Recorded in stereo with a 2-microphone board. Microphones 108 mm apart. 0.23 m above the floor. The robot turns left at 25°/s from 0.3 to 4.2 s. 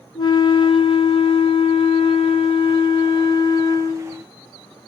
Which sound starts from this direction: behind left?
A flute, at 0.1 s.